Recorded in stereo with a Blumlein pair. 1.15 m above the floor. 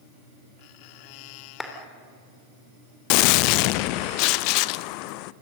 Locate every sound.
1.6 s a clap: 5° left, 3.5 m
3.1 s a gunshot: 45° left, 0.6 m